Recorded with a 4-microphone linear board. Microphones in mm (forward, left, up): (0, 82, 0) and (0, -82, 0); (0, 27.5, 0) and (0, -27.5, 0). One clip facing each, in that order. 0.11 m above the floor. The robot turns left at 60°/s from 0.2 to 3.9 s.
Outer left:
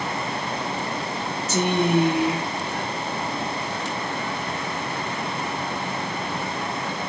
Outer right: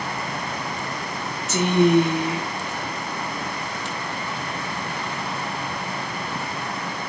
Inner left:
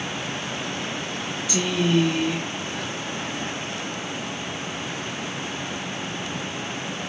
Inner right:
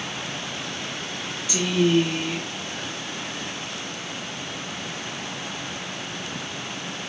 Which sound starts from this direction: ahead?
A woman speaking, at 1.5 s.